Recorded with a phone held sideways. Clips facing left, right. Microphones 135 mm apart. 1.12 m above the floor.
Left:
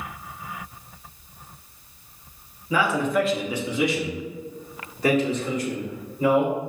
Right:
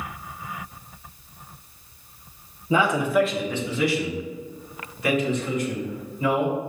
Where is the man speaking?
25° right (ahead or behind), 0.5 m; by 6.6 s 40° left (ahead or behind), 2 m.